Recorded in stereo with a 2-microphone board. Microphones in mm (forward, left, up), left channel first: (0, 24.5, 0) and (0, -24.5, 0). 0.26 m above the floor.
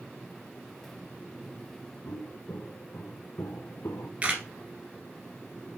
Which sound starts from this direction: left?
Footsteps, at 2.0 s.